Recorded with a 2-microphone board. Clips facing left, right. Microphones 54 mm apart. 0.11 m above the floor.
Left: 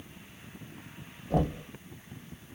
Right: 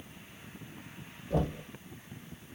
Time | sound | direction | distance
1.3 | knocking | 55° left (ahead or behind) | 2.5 m